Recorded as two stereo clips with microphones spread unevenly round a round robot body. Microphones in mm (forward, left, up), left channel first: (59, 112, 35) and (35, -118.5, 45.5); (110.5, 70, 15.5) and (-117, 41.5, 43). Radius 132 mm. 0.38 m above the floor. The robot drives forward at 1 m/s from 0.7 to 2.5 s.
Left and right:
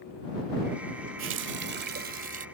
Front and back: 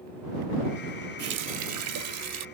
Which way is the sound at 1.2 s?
125° right.